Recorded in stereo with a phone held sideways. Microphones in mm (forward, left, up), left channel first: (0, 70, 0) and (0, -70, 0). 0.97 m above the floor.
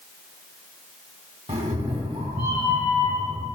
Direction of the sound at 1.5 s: 60° right (ahead or behind).